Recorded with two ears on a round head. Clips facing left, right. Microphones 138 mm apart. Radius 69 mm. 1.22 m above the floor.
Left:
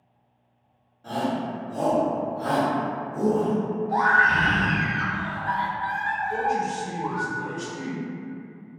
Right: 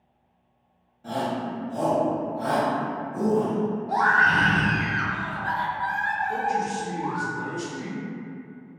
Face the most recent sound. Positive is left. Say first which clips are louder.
# left 2 dB
turn(degrees=-60)  # may be behind; listen again after turning